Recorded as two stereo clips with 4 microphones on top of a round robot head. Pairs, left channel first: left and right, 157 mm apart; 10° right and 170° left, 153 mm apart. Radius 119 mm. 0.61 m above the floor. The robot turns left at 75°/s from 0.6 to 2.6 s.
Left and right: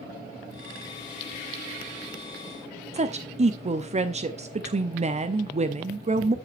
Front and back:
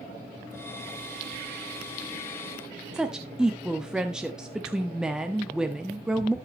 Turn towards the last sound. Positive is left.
turn(degrees=-110)